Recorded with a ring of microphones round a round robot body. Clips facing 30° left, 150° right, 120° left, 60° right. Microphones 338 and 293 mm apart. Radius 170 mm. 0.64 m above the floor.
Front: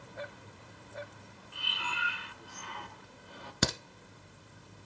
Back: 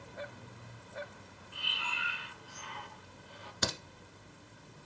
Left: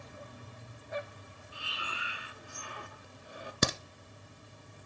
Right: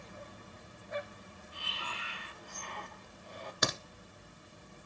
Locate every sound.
1.5 s breathing: 40° left, 1.1 m
3.6 s a crack: 60° left, 1.4 m